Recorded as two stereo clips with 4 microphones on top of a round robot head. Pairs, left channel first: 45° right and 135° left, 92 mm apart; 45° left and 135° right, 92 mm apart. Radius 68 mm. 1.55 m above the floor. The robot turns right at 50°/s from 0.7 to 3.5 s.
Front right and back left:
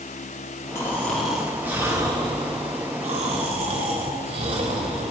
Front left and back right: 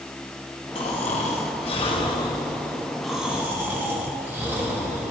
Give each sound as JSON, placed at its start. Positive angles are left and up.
{"t": 0.8, "sound": "snoring", "azimuth_deg": 20, "distance_m": 3.0}